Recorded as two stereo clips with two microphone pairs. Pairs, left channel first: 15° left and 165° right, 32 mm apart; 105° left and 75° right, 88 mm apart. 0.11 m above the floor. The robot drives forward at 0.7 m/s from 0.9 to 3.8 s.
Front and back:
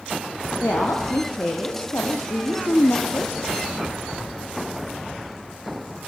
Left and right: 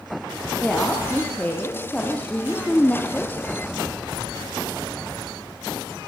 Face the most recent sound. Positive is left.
turn(degrees=35)